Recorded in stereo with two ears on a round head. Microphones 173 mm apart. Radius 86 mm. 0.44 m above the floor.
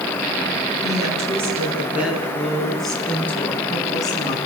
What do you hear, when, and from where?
0.8 s a woman speaking: 20° right (ahead or behind), 7 m; by 4.4 s 25° left (ahead or behind), 5 m